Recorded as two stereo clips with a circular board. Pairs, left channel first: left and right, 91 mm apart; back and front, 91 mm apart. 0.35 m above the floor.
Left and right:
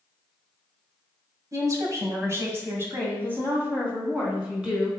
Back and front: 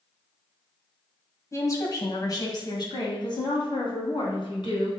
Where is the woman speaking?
130° right, 2 m; by 4.9 s 165° right, 3.5 m.